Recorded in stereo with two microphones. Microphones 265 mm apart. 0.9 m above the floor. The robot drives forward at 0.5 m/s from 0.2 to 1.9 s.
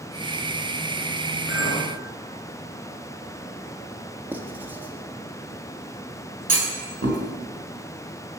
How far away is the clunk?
About 3.5 m.